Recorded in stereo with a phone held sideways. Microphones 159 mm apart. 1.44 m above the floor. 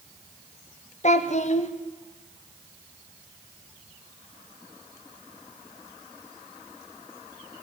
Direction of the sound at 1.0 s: 45° left (ahead or behind).